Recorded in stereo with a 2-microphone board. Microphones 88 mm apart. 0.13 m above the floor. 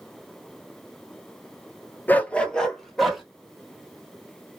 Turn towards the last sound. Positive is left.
turn(degrees=0)  # may be behind; listen again after turning